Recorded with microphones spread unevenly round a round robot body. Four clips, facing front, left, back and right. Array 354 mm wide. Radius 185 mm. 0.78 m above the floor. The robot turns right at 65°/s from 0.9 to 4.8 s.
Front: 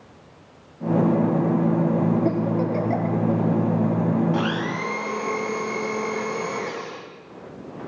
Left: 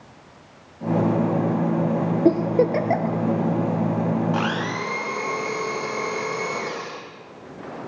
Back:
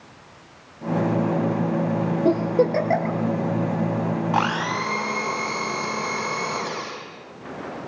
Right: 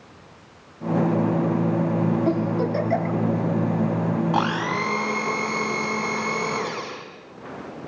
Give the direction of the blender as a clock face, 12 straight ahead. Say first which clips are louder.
Right 2 dB, back 2 dB; 5 o'clock.